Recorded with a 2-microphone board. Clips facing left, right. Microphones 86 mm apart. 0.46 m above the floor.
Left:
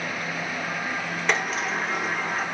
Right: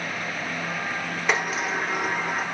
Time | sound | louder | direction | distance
1.3 | a sliding door | right 1 dB | 5° right (ahead or behind) | 0.8 m